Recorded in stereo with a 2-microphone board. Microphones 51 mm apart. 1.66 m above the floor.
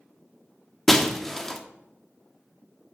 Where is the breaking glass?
10° left (ahead or behind), 1.2 m.